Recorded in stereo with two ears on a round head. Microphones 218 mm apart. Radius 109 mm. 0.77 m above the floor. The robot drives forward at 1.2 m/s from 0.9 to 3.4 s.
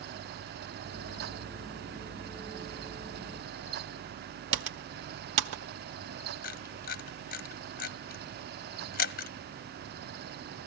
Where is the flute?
No flute in this recording.